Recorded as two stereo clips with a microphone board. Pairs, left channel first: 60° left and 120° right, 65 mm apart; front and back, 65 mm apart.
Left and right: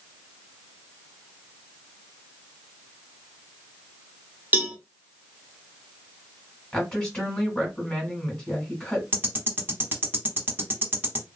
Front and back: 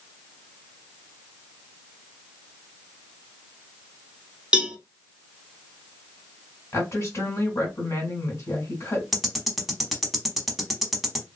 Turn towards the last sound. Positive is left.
turn(degrees=-95)